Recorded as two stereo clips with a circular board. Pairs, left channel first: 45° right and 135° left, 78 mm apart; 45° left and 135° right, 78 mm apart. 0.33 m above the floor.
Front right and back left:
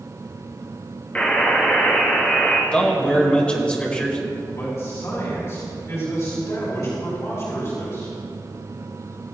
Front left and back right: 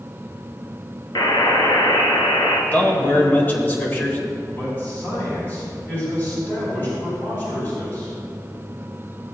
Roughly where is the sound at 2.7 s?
Ahead.